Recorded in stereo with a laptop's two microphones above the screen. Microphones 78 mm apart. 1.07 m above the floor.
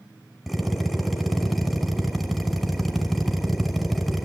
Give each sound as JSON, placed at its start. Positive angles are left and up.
{"t": 0.5, "sound": "a drill", "side_deg": 0, "distance_m": 6.0}